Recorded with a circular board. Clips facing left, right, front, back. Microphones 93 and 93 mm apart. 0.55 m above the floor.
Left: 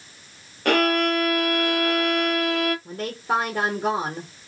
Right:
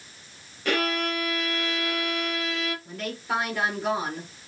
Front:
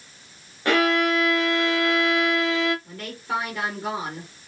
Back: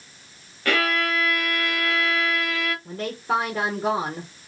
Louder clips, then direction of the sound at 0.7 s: Left 6 dB, front 3 dB; 65° left.